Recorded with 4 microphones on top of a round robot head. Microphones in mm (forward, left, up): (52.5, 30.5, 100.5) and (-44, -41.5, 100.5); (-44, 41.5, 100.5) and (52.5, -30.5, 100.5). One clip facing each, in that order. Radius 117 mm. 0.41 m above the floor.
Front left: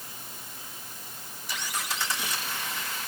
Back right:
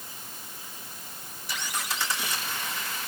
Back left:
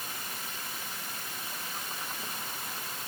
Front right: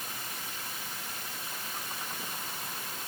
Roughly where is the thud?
No thud in this recording.